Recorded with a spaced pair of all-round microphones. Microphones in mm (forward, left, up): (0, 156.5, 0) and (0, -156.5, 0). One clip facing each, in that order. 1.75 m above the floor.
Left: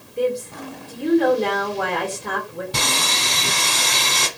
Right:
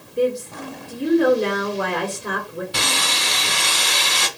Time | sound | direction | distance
0.2 | a woman speaking | 20° right (ahead or behind) | 1.5 m
2.7 | sawing | 55° left (ahead or behind) | 1.0 m